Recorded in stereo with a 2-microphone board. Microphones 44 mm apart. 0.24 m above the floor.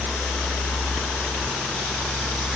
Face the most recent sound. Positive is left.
No sound to turn to.